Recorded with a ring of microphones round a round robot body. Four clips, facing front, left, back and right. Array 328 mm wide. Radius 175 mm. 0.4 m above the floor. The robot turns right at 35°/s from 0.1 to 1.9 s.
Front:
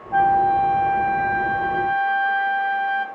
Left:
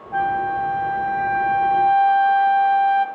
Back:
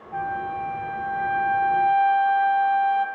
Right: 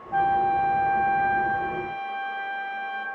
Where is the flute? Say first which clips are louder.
Even, front 12 dB; 5° left, 1.4 m; by 3.1 s 70° left, 1.4 m.